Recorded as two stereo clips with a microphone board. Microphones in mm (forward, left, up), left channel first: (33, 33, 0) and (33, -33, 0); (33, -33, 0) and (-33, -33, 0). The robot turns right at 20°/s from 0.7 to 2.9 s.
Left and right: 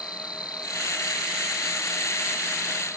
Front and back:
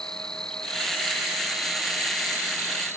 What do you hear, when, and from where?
0.0 s an insect: 80° left; by 3.0 s 125° left